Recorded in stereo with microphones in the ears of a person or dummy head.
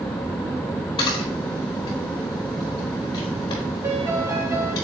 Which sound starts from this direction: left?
A camera shutter, at 1.0 s.